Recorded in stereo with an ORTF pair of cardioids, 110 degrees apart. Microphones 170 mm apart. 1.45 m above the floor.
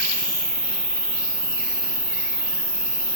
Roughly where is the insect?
Ahead.